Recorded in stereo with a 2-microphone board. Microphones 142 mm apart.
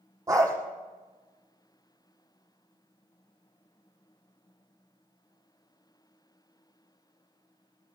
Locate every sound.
0.3 s a dog barking: 20° right (ahead or behind), 7 m